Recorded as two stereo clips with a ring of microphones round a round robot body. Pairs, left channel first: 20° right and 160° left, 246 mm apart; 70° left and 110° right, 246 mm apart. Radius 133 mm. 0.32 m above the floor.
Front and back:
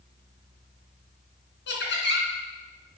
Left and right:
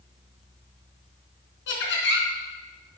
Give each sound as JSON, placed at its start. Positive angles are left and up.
{"t": 1.7, "sound": "laughter", "azimuth_deg": 25, "distance_m": 3.5}